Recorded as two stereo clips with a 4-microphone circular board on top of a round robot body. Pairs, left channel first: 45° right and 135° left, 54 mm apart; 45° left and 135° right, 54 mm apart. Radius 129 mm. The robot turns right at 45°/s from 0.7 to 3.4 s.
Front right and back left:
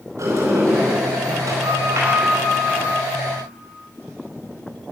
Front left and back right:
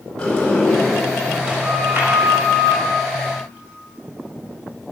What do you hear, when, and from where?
0.2 s a sliding door: 120° left, 4 m; by 2.9 s 140° right, 4 m